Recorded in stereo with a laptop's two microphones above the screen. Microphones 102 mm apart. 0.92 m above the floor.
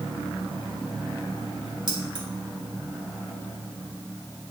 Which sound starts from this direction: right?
Keys jangling, at 1.9 s.